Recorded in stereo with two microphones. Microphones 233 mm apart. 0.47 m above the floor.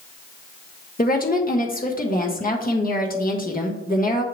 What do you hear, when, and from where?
1.0 s a woman speaking: 40° left (ahead or behind), 1.1 m